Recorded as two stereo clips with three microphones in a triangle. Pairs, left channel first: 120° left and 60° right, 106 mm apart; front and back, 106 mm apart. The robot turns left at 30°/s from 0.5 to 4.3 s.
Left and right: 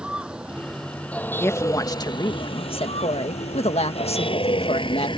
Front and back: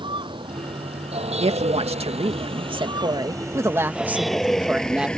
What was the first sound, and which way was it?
A vehicle, 140° right.